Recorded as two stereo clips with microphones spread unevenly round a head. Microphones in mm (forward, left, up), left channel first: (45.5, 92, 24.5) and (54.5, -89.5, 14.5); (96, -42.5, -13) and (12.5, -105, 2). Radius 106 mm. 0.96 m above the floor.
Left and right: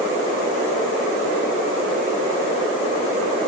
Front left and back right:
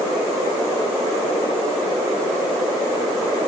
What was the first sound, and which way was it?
Only background noise.